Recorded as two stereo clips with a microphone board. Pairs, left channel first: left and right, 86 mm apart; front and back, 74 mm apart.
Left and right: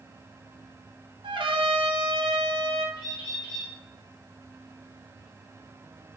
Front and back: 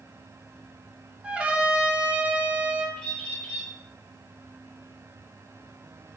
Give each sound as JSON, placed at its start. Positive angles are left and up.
{"t": 1.2, "sound": "a trumpet", "azimuth_deg": -105, "distance_m": 0.6}
{"t": 3.0, "sound": "a bird", "azimuth_deg": 75, "distance_m": 1.6}